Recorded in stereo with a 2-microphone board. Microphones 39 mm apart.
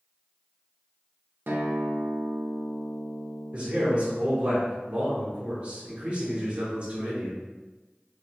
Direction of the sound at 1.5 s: 55° right (ahead or behind).